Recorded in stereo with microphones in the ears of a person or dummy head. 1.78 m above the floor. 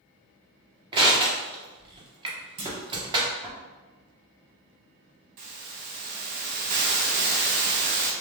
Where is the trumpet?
I don't hear a trumpet.